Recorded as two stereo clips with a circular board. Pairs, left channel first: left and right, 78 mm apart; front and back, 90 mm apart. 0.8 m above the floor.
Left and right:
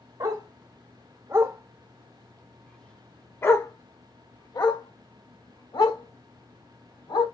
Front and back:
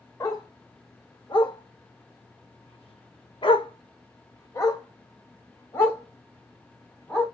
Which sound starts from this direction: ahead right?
A dog barking, at 0.2 s.